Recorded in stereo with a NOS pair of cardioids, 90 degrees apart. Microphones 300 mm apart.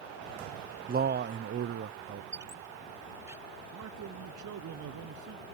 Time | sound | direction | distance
0.9 | a man speaking | 30° right | ?
2.3 | a squeak | 10° right | ?
3.7 | a man speaking | 70° right | ?